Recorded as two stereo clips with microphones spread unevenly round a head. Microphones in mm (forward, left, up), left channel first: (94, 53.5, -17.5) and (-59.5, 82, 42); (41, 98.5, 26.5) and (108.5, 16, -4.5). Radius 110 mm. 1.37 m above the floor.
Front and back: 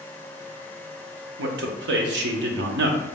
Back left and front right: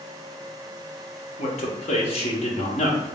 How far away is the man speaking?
About 0.6 m.